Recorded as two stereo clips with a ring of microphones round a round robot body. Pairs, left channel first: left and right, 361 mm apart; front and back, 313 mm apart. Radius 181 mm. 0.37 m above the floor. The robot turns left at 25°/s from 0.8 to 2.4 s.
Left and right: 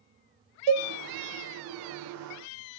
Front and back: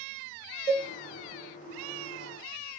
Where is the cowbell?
65° right, 0.9 m; by 0.9 s 70° right, 0.9 m.